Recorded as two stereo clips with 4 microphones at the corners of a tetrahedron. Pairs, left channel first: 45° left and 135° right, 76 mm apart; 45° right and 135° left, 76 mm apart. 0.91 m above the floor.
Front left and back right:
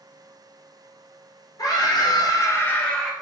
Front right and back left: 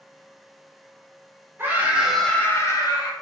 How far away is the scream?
About 0.9 m.